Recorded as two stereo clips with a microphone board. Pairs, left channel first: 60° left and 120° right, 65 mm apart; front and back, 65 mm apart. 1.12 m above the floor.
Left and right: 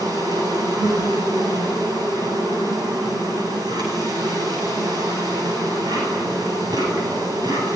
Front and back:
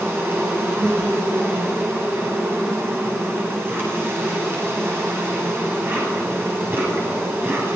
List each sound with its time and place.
0.0 s an insect: 125° right, 9.5 m